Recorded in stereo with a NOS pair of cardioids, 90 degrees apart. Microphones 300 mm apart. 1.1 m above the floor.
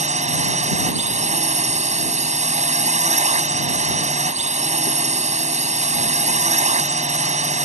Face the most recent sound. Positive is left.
turn(degrees=-25)